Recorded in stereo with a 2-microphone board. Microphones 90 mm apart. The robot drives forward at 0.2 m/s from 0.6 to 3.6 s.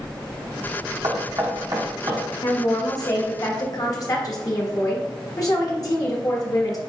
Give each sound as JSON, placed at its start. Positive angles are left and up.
{"t": 1.0, "sound": "knocking", "side_deg": -50, "distance_m": 0.9}
{"t": 2.4, "sound": "a woman speaking", "side_deg": 45, "distance_m": 1.0}